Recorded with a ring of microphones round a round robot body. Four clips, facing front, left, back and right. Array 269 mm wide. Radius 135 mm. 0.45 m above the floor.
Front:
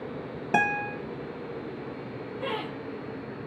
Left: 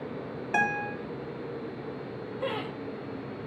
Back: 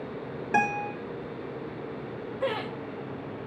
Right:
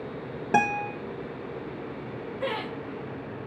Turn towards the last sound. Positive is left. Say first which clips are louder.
# right 2 dB, back 3 dB
turn(degrees=-165)